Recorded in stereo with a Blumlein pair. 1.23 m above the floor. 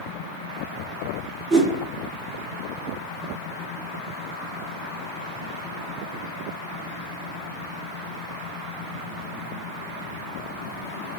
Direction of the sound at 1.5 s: 35° right.